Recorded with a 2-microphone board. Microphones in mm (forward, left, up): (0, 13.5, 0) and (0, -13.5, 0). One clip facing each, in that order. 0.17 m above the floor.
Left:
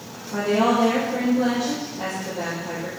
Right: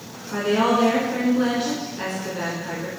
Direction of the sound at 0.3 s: 45° right (ahead or behind).